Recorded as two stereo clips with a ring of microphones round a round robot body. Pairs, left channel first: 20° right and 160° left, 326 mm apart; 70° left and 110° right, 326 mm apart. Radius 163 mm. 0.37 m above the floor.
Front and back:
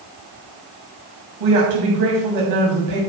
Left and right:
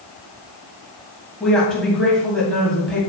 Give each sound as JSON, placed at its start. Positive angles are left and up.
{"t": 1.4, "sound": "a woman speaking", "azimuth_deg": 155, "distance_m": 3.0}